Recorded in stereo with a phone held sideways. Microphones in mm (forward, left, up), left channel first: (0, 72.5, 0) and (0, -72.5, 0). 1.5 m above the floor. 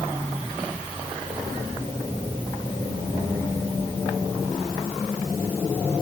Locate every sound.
Only background noise.